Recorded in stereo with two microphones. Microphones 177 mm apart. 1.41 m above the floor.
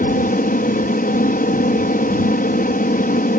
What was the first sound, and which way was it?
An aircraft, 55° left (ahead or behind).